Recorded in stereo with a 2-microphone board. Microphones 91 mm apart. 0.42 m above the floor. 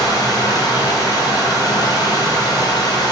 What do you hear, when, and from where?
0.0 s running water: 45° left (ahead or behind), 0.8 m